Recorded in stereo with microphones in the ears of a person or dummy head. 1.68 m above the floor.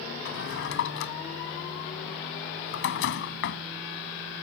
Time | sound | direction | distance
0.2 | a drawer | 60° left (ahead or behind) | ?